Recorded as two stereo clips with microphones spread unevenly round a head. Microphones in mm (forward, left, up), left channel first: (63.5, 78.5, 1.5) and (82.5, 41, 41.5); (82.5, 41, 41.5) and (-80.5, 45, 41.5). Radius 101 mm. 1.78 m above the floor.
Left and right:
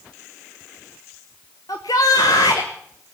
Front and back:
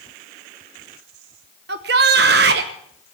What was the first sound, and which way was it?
A shout, 155° right.